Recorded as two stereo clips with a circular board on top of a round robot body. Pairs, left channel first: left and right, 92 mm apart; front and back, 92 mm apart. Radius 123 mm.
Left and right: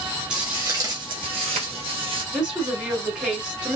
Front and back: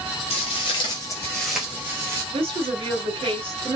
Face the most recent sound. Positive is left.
turn(degrees=-170)